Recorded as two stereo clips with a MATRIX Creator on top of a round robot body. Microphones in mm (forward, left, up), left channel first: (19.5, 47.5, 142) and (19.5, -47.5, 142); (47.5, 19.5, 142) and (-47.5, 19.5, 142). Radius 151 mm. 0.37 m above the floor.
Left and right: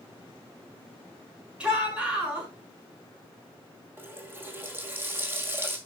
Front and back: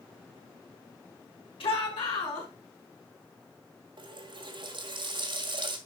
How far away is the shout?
About 6 m.